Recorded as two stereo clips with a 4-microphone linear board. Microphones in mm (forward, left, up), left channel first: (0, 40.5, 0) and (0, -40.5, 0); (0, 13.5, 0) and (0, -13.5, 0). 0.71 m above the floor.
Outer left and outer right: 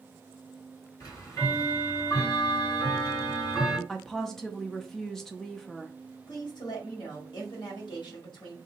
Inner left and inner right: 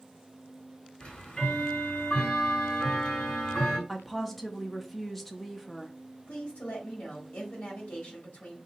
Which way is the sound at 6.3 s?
60° left (ahead or behind).